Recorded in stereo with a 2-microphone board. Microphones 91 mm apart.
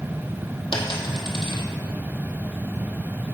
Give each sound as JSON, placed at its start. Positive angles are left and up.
{"t": 0.7, "sound": "a dropped coin", "side_deg": 60, "distance_m": 1.2}